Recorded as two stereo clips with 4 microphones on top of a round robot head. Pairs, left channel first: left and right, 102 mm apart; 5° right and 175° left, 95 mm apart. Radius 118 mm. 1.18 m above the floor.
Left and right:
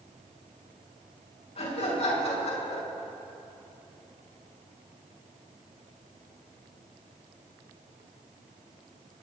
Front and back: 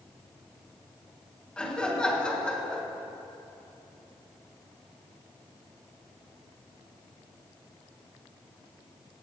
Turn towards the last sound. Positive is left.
turn(degrees=75)